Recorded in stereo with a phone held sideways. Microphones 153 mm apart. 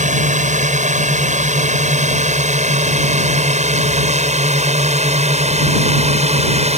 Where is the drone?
55° right (ahead or behind); by 6.8 s 45° right (ahead or behind).